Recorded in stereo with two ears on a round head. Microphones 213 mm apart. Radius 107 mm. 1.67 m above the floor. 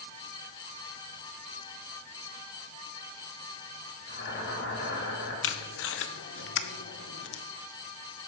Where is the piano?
No piano in this recording.